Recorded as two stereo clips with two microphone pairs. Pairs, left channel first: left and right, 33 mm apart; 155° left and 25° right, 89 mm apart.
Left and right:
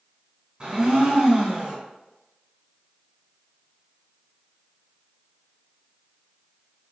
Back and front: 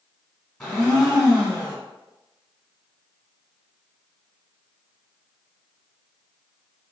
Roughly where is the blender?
Behind right.